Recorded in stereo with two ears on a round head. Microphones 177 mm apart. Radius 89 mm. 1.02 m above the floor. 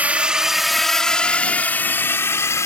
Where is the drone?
10° right (ahead or behind); by 2.7 s 15° left (ahead or behind).